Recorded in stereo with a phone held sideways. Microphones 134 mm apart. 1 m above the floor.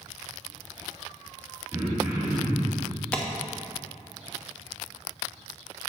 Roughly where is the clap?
Centre.